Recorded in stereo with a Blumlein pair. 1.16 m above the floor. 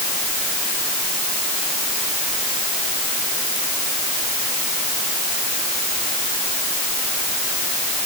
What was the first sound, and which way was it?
Only background noise.